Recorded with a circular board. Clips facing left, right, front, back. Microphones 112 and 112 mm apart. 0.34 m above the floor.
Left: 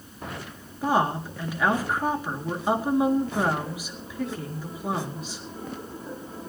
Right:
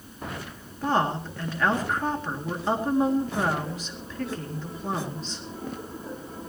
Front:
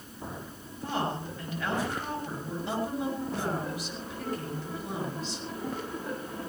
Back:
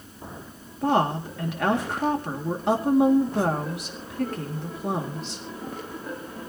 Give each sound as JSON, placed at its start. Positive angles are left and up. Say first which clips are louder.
{"t": 0.8, "sound": "a woman speaking", "louder": "left 1 dB, back 9 dB", "azimuth_deg": 170, "distance_m": 4.0}